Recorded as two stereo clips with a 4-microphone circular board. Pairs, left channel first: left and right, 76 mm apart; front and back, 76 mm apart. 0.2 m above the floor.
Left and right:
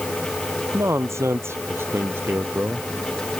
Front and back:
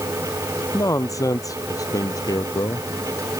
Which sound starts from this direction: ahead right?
A man speaking, at 0.7 s.